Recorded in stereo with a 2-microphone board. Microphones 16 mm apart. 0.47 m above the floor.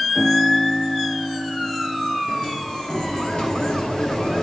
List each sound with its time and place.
0.1 s a piano: 20° left (ahead or behind), 8.5 m
2.3 s a sliding door: 60° left (ahead or behind), 3 m